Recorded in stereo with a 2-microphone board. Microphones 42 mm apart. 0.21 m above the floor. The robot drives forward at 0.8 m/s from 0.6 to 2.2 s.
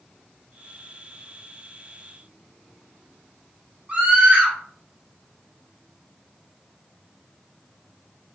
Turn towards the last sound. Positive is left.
turn(degrees=-20)  # may be behind; listen again after turning